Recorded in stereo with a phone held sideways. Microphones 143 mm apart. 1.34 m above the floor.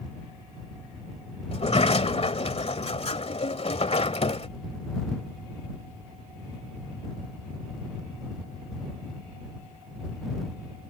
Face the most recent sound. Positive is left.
turn(degrees=45)  # may be behind; listen again after turning